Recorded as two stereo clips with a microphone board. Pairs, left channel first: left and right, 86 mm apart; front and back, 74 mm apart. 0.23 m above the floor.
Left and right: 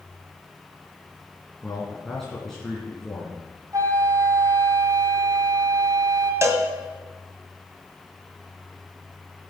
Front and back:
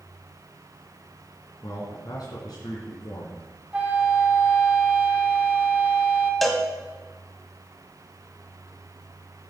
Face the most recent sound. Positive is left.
turn(degrees=-85)